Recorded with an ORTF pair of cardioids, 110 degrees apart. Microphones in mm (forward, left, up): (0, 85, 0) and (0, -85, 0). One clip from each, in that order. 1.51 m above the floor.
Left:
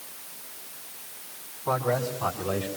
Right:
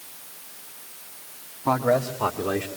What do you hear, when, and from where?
1.6 s a man speaking: 60° right, 3 m; by 2.7 s 80° right, 3 m